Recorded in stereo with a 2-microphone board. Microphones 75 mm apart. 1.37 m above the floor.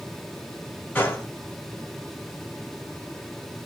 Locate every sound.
0.9 s a gunshot: 25° left (ahead or behind), 1.4 m